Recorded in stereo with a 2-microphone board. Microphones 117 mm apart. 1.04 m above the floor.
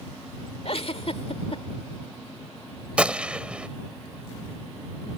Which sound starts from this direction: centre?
A gunshot, at 3.0 s.